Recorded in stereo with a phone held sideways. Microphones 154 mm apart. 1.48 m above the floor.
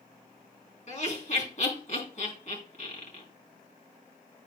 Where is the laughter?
50° left (ahead or behind), 3.5 m.